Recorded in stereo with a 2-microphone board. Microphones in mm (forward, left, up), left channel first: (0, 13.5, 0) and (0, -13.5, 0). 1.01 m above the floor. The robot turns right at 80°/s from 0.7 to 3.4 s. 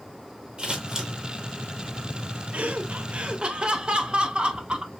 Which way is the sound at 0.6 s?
40° right (ahead or behind).